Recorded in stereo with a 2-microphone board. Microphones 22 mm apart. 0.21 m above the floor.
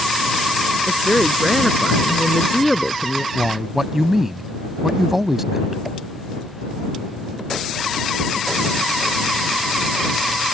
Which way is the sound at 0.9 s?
5° left (ahead or behind).